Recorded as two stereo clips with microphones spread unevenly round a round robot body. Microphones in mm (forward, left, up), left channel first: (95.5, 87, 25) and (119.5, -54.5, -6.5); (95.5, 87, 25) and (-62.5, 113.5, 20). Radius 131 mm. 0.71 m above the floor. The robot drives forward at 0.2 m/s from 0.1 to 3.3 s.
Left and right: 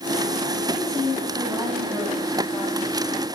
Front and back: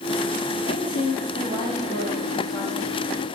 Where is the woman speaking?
175° right, 4 m.